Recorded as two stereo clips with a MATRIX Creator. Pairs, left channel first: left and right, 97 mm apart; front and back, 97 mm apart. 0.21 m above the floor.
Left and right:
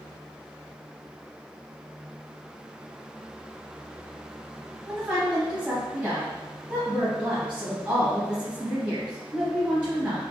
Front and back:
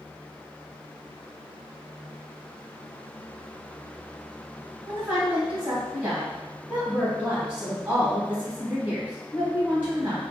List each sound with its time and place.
4.9 s a woman speaking: 140° right, 1.0 m